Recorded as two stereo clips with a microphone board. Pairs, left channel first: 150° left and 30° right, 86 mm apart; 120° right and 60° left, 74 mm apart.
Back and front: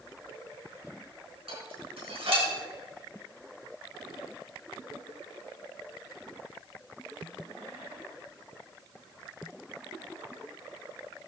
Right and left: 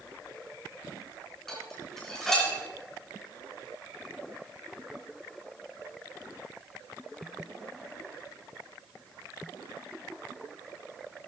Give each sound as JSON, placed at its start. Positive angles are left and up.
{"t": 1.5, "sound": "dishes clattering", "azimuth_deg": -35, "distance_m": 4.0}